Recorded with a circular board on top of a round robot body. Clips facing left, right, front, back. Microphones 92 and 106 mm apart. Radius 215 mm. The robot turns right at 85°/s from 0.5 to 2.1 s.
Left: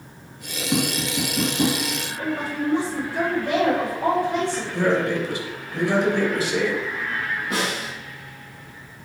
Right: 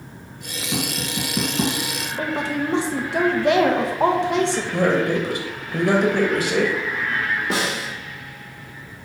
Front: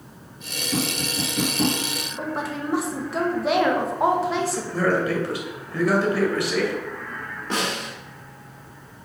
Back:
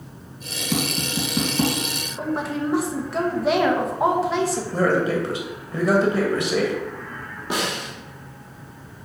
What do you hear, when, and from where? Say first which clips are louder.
0.7 s tapping: left 3 dB, back 1 dB; 165° left, 2.5 m; by 1.8 s 105° right, 2.5 m
2.2 s a woman speaking: right 3 dB, back 4 dB; 90° right, 1.2 m
4.7 s a man speaking: right 1 dB, back 1 dB; 115° right, 2 m
7.5 s a snare drum: right 2 dB, back 1 dB; 100° right, 1.7 m